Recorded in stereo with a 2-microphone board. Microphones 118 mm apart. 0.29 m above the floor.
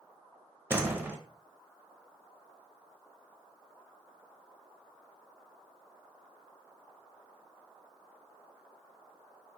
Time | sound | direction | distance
0.7 | a door slam | 20° right (ahead or behind) | 0.7 m